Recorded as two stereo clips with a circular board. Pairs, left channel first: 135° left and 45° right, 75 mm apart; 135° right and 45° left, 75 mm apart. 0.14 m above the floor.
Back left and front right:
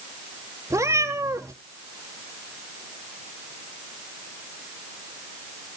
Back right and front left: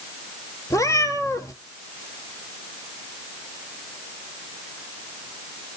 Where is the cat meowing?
95° right, 1.3 m.